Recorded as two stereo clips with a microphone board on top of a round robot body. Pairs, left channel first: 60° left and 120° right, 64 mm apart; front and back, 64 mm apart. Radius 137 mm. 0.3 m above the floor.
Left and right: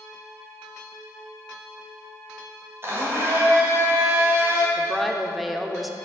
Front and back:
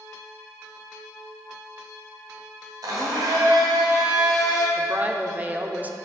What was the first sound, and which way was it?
A blender, 170° right.